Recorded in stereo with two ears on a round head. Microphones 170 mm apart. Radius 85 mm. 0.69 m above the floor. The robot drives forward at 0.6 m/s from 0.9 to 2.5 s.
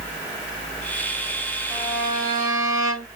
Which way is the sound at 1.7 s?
20° right (ahead or behind).